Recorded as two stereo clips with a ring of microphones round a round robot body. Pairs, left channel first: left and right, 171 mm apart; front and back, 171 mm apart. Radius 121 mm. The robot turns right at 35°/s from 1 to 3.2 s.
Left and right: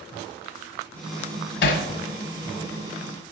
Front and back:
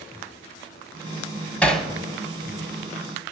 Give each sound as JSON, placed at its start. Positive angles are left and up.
{"t": 1.6, "sound": "hammering", "azimuth_deg": 80, "distance_m": 1.2}